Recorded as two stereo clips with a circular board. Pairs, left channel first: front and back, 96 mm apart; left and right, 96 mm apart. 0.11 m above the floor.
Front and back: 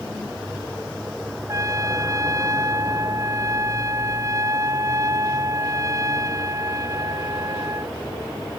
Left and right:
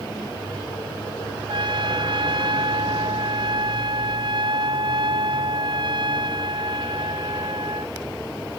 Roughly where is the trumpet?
Behind right.